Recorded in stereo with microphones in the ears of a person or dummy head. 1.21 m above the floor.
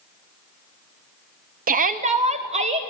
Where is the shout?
40° right (ahead or behind), 0.9 m; by 2.9 s 30° right (ahead or behind), 1.9 m.